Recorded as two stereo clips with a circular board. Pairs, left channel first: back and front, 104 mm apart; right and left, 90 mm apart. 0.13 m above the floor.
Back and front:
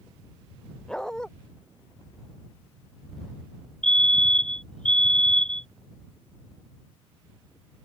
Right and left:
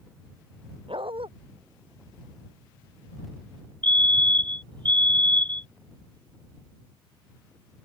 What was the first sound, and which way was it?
A dog barking, 95° left.